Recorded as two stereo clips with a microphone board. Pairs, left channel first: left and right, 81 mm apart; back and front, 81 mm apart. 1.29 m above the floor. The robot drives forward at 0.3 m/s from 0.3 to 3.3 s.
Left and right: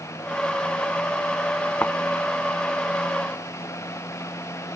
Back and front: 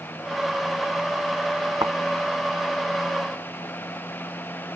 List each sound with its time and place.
1.8 s a thud: 25° left